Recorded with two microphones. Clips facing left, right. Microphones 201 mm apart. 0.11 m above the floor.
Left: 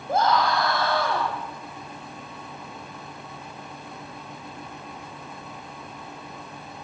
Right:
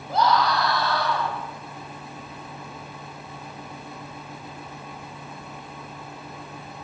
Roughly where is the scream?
Left.